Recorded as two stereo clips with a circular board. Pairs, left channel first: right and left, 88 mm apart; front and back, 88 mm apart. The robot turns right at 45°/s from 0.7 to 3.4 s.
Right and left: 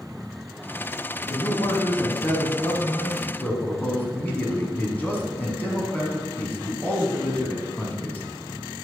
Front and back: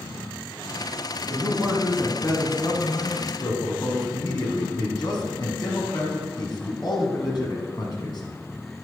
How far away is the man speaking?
About 2.5 m.